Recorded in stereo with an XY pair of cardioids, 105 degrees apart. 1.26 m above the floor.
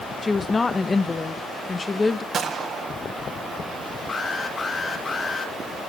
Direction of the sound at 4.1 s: 40° left.